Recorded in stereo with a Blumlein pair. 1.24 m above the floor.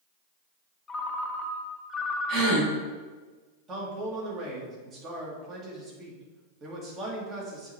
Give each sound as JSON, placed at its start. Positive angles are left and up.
{"t": 0.9, "sound": "a ringtone", "azimuth_deg": 15, "distance_m": 0.8}
{"t": 2.3, "sound": "a gasp", "azimuth_deg": -40, "distance_m": 3.0}
{"t": 3.7, "sound": "a man speaking", "azimuth_deg": -30, "distance_m": 2.0}